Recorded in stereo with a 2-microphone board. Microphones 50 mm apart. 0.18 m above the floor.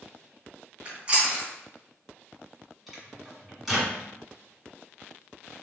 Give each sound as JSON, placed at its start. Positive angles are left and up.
{"t": 0.8, "sound": "chewing", "side_deg": -25, "distance_m": 1.8}
{"t": 2.9, "sound": "a microwave", "side_deg": 0, "distance_m": 1.6}